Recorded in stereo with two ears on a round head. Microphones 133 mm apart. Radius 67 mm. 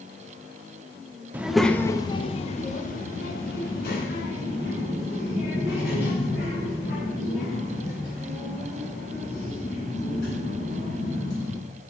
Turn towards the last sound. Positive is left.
turn(degrees=85)